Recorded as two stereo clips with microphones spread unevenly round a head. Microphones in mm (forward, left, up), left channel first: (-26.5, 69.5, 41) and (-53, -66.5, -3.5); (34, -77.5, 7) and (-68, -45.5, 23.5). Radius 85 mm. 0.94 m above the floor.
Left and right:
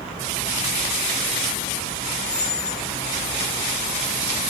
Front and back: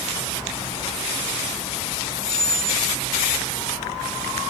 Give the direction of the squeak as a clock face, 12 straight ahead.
11 o'clock.